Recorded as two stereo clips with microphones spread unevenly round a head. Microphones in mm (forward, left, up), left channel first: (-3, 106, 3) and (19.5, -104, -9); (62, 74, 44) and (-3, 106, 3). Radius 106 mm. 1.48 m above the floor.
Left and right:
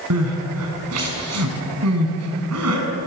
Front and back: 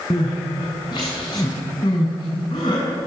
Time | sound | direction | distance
0.1 | crying | 70° right | 5.5 m